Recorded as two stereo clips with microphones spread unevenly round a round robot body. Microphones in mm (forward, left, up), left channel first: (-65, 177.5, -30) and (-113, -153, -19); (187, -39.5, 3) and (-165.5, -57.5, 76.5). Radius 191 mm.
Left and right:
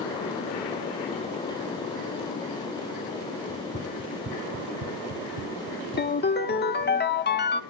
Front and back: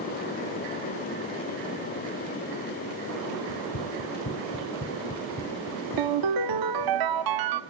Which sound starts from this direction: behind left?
A ringtone, at 6.0 s.